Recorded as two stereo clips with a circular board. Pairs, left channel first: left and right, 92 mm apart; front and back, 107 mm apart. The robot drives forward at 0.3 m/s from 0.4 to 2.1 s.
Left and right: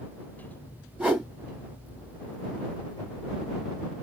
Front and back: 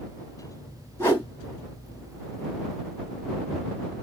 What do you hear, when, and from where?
1.0 s a whoosh: 35° right, 1.6 m; by 1.3 s 40° right, 1.6 m